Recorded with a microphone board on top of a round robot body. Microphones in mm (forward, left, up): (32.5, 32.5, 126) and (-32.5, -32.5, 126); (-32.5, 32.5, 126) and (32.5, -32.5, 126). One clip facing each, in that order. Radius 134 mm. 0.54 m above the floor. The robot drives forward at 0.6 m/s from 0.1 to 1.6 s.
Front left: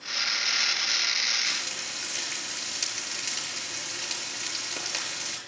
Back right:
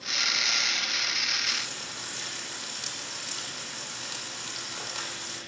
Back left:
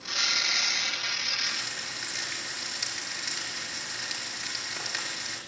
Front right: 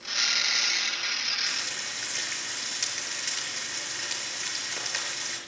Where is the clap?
I don't hear a clap.